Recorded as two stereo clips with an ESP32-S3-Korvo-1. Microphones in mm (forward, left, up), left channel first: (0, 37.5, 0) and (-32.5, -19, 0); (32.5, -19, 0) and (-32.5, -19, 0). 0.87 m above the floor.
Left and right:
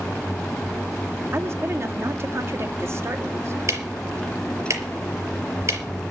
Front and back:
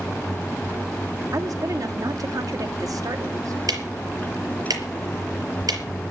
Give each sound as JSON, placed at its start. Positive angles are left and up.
{"t": 1.3, "sound": "a woman speaking", "azimuth_deg": -165, "distance_m": 1.9}
{"t": 3.7, "sound": "ticking", "azimuth_deg": -165, "distance_m": 4.5}